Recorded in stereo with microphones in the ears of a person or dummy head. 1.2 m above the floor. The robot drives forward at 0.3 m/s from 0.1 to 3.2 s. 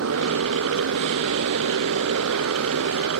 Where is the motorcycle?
85° right.